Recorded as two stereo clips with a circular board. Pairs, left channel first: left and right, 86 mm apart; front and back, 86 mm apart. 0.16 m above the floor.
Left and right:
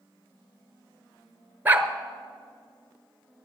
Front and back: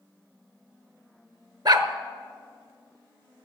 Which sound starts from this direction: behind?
A dog barking, at 1.6 s.